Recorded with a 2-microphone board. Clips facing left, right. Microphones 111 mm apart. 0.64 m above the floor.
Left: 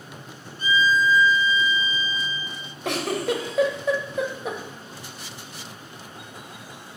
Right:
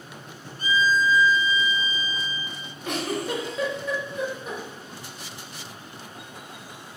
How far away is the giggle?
About 0.9 m.